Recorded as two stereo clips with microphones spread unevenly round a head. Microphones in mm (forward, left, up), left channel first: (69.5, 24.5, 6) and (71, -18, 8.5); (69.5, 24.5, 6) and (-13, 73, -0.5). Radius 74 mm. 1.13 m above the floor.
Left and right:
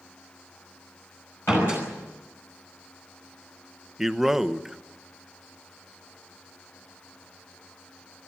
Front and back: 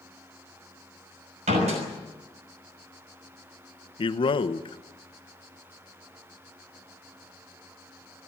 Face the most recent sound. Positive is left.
turn(degrees=-5)